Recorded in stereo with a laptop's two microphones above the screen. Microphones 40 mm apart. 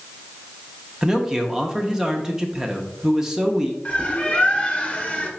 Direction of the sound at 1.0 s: 15° right (ahead or behind).